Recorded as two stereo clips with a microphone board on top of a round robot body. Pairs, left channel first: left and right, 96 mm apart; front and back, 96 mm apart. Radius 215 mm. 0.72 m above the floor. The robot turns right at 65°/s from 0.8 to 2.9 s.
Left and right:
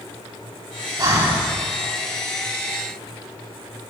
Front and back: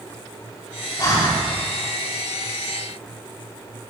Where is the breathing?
45° right, 4 m; by 1.4 s 20° right, 4 m.